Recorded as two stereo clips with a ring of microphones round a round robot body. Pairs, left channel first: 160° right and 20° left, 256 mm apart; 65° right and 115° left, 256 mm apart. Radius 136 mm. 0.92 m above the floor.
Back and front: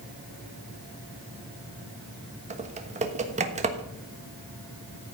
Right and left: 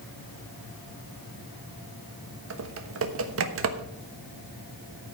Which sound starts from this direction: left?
Typing on a keyboard, at 2.5 s.